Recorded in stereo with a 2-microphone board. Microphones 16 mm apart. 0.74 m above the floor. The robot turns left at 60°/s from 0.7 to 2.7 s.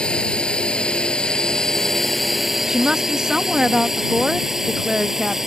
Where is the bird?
I don't hear a bird.